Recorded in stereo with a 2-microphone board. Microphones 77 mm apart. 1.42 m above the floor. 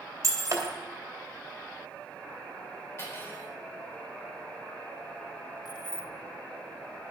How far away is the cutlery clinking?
About 3.5 m.